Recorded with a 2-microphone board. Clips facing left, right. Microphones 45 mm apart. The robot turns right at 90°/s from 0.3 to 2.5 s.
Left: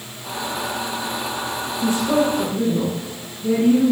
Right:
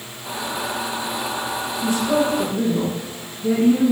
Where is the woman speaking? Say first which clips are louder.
Left 1 dB; 135° left, 9.5 m; by 3.9 s 165° right, 9.5 m.